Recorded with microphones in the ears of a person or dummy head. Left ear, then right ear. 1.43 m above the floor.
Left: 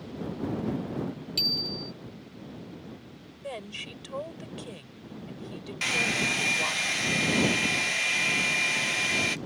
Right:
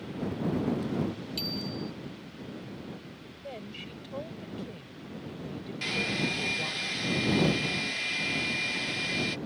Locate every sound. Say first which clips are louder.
1.4 s a bicycle bell: left 9 dB; 20° left (ahead or behind)
3.4 s a woman speaking: left 5 dB; 45° left (ahead or behind)
5.8 s a hair dryer: left 4 dB; 30° left (ahead or behind)